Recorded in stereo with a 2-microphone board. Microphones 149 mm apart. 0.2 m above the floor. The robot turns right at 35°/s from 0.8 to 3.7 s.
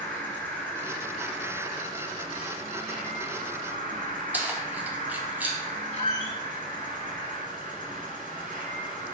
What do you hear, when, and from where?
0.0 s an insect: 165° left, 1.5 m; by 9.2 s 90° right, 1.5 m
4.3 s keys jangling: 10° right (ahead or behind), 0.7 m
5.9 s a squeak: 50° left (ahead or behind), 0.7 m